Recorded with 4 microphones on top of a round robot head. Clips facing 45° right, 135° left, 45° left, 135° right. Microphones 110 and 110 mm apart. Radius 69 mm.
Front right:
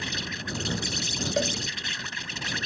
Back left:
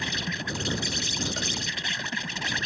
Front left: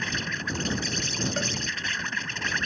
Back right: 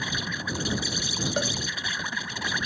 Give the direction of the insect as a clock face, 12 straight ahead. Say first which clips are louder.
Back left 2 dB, even; 7 o'clock.